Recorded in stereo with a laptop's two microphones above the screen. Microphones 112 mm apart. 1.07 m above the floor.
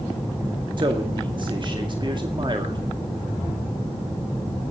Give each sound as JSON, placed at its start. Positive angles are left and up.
{"t": 0.8, "sound": "a man speaking", "side_deg": -40, "distance_m": 2.0}